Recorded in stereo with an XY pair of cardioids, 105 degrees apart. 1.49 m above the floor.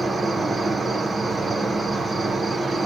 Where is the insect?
20° right, 0.7 m.